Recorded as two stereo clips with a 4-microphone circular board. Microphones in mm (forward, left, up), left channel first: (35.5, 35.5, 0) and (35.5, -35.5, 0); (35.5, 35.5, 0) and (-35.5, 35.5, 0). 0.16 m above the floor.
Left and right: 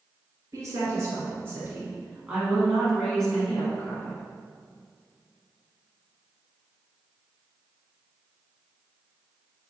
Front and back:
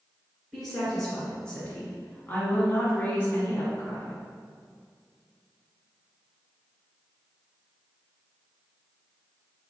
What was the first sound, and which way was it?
A woman speaking, 85° right.